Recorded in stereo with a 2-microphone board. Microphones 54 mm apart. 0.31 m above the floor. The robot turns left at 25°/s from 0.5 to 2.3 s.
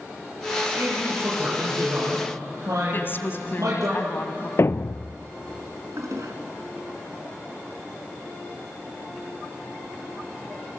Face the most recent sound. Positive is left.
turn(degrees=-70)  # may be behind; listen again after turning